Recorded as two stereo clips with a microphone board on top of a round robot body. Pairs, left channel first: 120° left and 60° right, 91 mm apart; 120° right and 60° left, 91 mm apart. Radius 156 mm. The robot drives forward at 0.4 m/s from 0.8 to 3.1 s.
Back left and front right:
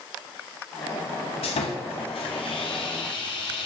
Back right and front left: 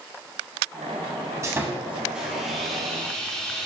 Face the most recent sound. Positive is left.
turn(degrees=155)